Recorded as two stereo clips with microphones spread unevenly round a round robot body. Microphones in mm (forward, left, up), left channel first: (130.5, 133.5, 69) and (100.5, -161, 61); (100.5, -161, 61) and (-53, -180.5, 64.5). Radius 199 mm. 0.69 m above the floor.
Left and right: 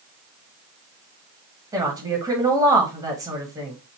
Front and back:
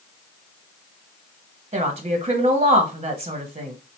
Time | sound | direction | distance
1.7 | a woman speaking | 165° right | 1.2 m